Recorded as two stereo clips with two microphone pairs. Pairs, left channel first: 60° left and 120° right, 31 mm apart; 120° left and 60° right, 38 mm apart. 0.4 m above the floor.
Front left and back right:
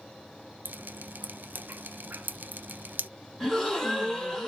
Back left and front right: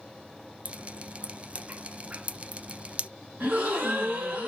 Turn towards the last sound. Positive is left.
turn(degrees=-20)